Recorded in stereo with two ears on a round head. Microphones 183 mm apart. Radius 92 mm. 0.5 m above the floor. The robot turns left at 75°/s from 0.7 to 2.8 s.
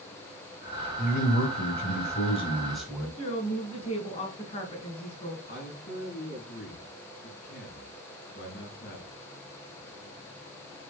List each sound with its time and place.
1.0 s a man speaking: 135° left, 3.5 m; by 3.1 s straight ahead, 3.5 m
3.2 s a woman speaking: 30° left (ahead or behind), 5 m
5.5 s a man speaking: 45° left (ahead or behind), 6 m